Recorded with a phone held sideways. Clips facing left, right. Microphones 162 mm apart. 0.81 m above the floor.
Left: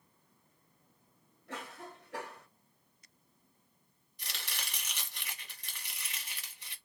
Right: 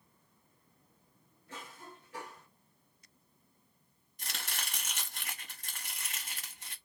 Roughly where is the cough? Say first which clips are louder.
Left 4 dB; left.